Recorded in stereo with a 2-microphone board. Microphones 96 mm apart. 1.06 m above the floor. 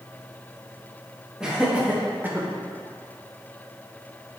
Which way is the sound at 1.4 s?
10° right (ahead or behind).